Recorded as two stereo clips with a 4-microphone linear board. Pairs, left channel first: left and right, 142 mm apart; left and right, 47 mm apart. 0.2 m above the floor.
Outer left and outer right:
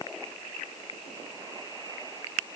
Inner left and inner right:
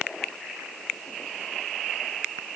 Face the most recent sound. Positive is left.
No sound to turn to.